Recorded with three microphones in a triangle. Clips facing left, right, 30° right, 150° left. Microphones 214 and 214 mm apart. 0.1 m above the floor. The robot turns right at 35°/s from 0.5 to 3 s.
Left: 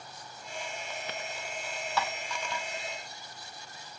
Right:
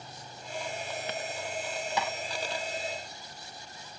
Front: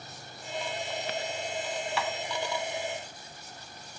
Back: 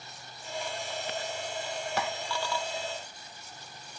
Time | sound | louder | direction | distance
2.0 | tapping | left 1 dB, back 2 dB | 165° right | 1.8 m